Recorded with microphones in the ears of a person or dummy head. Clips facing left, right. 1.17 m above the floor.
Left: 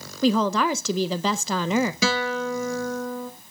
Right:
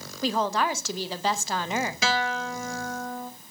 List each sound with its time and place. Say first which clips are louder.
0.2 s a woman speaking: left 5 dB; 70° left (ahead or behind), 0.6 m
2.0 s a guitar: left 3 dB; 75° left (ahead or behind), 1.3 m